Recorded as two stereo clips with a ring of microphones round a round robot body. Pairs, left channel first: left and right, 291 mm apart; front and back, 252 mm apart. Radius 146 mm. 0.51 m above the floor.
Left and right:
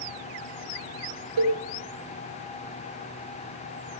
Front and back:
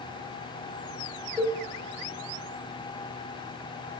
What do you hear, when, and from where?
1.4 s a cowbell: 85° right, 1.9 m